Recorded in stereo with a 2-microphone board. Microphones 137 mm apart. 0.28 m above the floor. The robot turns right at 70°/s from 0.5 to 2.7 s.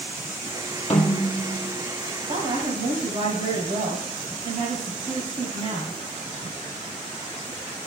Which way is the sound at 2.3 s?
55° right (ahead or behind).